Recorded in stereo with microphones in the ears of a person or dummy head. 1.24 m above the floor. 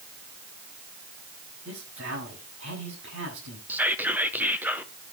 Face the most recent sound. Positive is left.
turn(degrees=-5)  # may be behind; listen again after turning